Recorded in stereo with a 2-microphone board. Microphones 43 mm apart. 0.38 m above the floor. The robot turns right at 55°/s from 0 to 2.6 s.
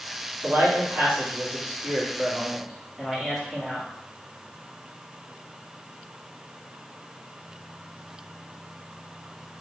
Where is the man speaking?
120° right, 3.5 m; by 3.9 s 5° right, 3.5 m.